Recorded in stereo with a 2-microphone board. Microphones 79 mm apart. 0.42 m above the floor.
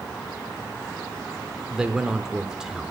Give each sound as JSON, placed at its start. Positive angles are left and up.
{"t": 1.7, "sound": "a man speaking", "side_deg": -10, "distance_m": 0.9}